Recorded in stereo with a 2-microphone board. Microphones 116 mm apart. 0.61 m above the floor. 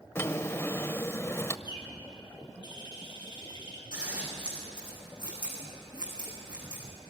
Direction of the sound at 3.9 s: 40° right (ahead or behind).